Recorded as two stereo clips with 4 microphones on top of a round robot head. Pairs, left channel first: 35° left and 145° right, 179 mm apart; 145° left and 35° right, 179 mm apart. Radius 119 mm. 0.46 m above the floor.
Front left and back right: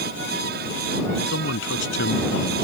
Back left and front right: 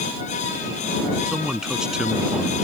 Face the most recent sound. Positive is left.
turn(degrees=50)